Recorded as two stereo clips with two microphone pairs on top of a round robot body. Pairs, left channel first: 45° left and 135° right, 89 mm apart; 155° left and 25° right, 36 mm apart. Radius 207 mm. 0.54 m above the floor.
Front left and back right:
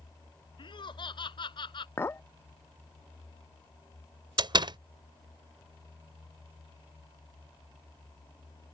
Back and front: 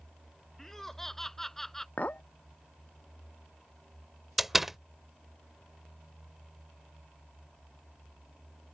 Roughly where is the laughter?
Left.